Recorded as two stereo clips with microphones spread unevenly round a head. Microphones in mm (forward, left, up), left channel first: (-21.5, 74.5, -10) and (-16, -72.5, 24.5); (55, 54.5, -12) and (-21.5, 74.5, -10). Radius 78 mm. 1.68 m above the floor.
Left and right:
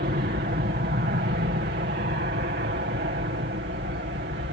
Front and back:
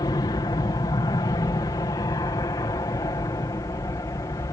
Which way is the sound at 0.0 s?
60° right.